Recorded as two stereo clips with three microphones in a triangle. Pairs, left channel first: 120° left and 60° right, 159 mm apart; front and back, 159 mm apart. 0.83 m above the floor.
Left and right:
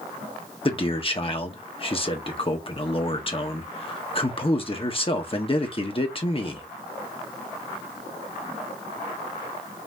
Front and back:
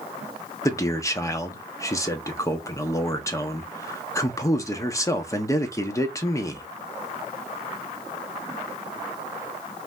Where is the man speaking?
70° left, 1.2 m.